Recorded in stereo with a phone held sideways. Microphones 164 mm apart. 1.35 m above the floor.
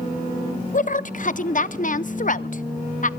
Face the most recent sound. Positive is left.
turn(degrees=50)  # may be behind; listen again after turning